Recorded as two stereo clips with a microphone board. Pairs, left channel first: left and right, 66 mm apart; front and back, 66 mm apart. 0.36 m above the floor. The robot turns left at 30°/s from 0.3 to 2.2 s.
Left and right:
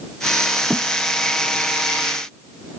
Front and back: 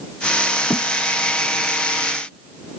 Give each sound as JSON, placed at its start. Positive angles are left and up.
{"t": 0.7, "sound": "a thud", "azimuth_deg": -5}